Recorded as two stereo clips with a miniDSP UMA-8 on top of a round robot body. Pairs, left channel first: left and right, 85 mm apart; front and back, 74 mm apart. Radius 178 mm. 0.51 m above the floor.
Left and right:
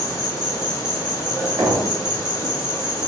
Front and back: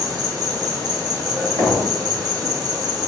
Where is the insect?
140° left, 1.4 m.